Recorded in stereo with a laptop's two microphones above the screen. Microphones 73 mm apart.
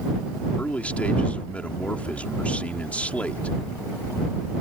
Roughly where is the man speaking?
Centre.